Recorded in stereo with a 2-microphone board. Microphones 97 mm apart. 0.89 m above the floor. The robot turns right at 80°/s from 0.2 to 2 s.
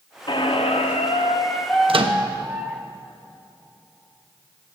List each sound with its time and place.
0.3 s a squeak: 50° left, 0.6 m; by 2.8 s 175° right, 0.6 m
1.9 s a microwave: 65° right (ahead or behind), 0.5 m; by 2.2 s 60° right (ahead or behind), 0.5 m